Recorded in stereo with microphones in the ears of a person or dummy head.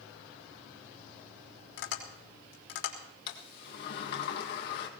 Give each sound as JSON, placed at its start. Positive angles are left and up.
{"t": 1.8, "sound": "tapping", "side_deg": 70, "distance_m": 3.5}
{"t": 3.3, "sound": "a sliding door", "side_deg": 60, "distance_m": 1.8}